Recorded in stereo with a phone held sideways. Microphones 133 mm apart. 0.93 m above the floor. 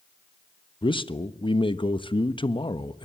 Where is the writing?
No writing in this recording.